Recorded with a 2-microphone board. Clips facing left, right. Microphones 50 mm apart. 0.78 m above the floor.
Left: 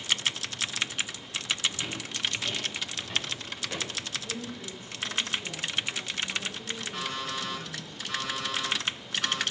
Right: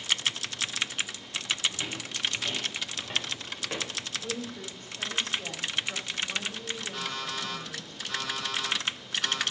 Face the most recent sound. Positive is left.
turn(degrees=15)  # may be behind; listen again after turning